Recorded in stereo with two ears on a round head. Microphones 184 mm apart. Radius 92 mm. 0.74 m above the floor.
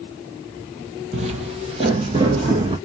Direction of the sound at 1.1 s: 35° right (ahead or behind).